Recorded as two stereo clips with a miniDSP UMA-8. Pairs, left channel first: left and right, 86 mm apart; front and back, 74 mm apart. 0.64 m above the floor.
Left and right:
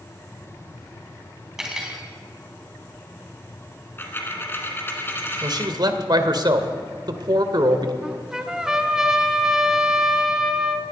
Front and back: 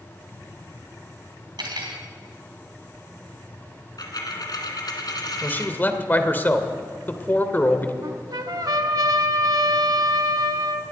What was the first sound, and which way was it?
Cutlery clinking, 175° right.